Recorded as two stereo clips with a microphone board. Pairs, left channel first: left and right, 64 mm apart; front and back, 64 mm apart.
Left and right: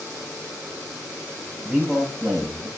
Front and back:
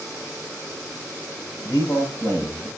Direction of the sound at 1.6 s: 25° right.